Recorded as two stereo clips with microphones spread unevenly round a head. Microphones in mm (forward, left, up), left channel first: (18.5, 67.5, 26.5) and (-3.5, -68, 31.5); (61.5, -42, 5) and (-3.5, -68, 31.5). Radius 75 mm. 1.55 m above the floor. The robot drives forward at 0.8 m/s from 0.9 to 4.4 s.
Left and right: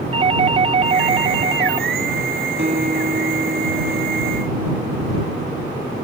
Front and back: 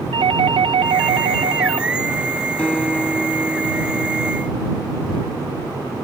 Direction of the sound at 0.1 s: 150° right.